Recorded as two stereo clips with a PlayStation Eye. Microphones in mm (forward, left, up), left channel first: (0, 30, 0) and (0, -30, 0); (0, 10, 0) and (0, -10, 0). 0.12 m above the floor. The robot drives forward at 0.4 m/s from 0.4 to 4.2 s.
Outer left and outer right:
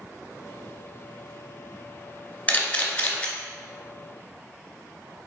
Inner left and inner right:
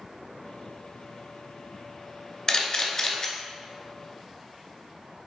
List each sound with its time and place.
2.5 s a camera shutter: 25° left (ahead or behind), 0.7 m; by 3.3 s 20° left (ahead or behind), 0.8 m